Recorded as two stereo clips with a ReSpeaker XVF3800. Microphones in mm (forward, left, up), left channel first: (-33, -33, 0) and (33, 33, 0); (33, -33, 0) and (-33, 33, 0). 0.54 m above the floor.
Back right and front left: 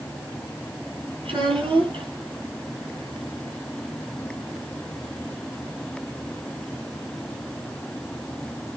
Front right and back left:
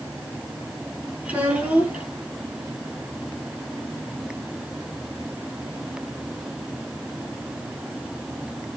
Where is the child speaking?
60° left, 5 m.